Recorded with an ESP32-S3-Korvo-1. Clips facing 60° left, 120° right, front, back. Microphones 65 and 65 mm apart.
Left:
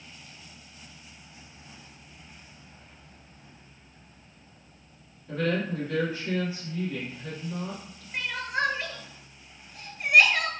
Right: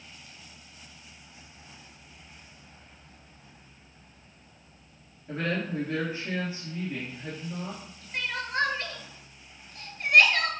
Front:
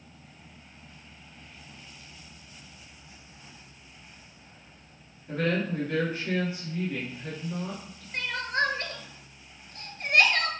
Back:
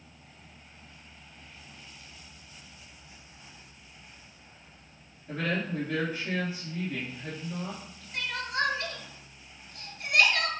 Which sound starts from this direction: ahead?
Crying, at 8.1 s.